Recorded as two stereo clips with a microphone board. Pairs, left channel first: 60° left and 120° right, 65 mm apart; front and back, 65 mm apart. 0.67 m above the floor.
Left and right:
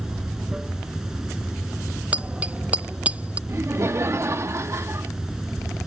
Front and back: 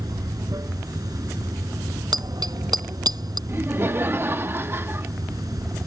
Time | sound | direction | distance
0.0 | running water | 160° left | ?
2.1 | a bicycle bell | 170° left | ?
3.5 | laughter | 140° right | ?